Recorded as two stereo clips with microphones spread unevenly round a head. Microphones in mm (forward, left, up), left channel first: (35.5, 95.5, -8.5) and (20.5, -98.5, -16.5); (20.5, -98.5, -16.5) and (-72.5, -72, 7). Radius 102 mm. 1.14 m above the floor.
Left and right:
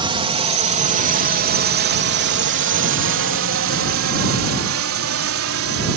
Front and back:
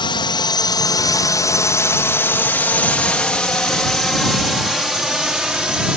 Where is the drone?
30° right; by 6.0 s 115° right.